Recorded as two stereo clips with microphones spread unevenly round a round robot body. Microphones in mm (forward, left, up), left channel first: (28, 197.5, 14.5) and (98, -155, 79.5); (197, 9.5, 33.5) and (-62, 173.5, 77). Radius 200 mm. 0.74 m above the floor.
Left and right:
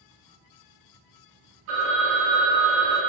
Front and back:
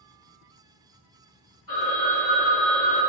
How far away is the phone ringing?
About 0.8 m.